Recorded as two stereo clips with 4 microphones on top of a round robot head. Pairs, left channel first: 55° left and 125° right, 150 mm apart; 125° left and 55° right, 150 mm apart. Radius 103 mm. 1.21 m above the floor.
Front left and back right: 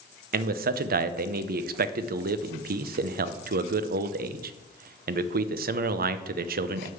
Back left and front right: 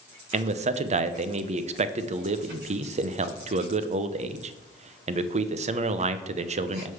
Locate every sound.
0.3 s a man speaking: 100° right, 0.6 m